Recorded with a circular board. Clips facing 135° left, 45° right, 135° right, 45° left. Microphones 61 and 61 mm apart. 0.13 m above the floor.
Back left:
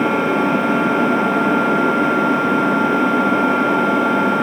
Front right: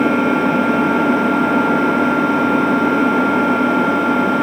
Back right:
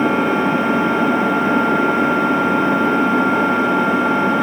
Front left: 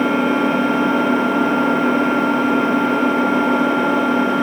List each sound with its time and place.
0.0 s an engine running: 135° right, 0.9 m